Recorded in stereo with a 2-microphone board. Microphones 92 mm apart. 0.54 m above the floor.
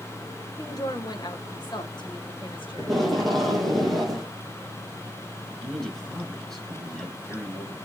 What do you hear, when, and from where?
0.6 s a woman speaking: 40° left (ahead or behind), 2.5 m; by 3.8 s 70° left (ahead or behind), 3.5 m
2.8 s tape being pulled: centre (ahead or behind), 5.5 m
5.6 s a man speaking: 5° left (ahead or behind), 5.5 m